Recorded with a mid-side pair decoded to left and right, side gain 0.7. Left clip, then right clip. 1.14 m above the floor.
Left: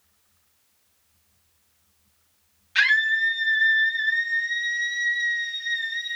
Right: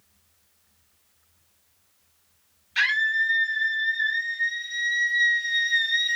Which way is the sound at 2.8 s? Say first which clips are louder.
Left 2 dB; 70° left.